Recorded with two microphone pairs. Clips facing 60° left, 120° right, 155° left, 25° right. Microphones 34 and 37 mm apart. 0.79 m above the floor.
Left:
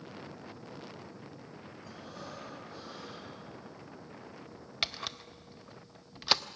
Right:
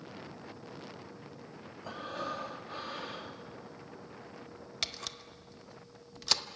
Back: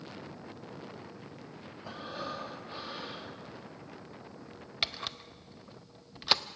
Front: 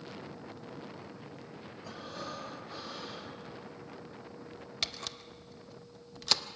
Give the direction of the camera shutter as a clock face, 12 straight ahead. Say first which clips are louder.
Left 4 dB, back 4 dB; 8 o'clock.